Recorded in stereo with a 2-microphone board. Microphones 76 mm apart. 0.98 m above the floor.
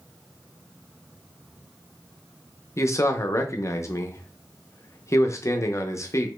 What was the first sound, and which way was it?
A man speaking, 40° left (ahead or behind).